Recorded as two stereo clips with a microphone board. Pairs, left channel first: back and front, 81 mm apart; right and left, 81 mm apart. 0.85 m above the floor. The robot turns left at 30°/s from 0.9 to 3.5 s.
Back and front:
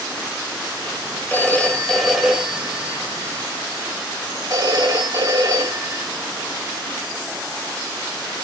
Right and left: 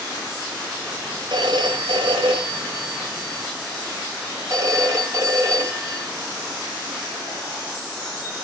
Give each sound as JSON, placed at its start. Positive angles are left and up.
{"t": 1.3, "sound": "a phone ringing", "azimuth_deg": 110, "distance_m": 2.5}